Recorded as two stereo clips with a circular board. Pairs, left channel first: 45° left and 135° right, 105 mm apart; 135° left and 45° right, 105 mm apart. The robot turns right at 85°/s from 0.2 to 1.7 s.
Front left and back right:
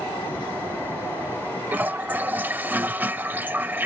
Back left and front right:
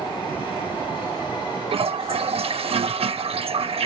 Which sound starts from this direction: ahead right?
A toilet flushing, at 1.7 s.